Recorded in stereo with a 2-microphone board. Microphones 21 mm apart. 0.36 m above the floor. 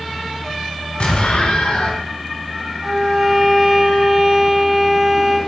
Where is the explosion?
55° left (ahead or behind), 1.1 m.